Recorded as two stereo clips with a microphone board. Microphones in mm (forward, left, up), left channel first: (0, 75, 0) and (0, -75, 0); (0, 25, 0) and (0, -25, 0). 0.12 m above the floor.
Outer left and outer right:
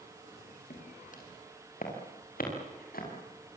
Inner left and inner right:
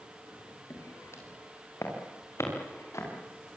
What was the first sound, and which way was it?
Footsteps, 60° left (ahead or behind).